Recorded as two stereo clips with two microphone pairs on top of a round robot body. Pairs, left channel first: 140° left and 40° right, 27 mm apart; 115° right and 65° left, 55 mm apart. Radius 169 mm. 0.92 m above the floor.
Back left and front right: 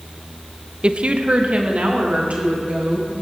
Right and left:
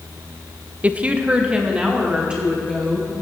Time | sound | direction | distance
0.8 | a woman speaking | 5° left | 0.7 m